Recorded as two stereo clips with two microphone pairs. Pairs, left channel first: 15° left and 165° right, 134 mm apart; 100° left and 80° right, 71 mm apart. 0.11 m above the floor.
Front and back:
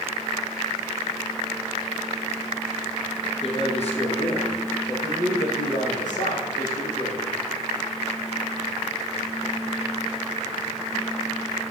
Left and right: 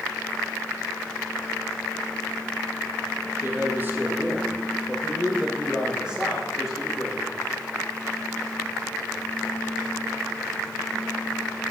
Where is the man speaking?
25° right, 3.5 m; by 7.4 s 5° left, 7.5 m.